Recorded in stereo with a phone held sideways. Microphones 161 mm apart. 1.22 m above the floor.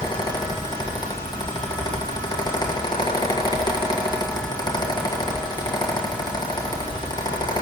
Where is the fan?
25° left (ahead or behind), 1.6 m.